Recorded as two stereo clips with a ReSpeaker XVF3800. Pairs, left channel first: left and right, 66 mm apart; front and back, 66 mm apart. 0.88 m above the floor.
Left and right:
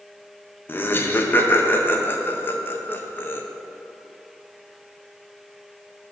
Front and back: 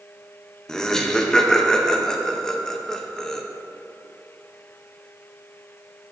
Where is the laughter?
75° left, 0.6 m.